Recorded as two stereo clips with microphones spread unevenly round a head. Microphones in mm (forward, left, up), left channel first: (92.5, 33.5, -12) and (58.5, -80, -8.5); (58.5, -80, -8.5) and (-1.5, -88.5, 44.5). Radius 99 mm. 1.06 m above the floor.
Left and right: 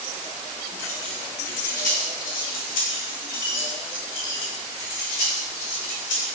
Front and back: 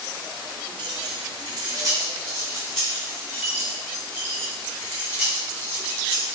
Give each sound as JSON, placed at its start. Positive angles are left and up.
{"t": 0.8, "sound": "keys jangling", "azimuth_deg": 150, "distance_m": 1.0}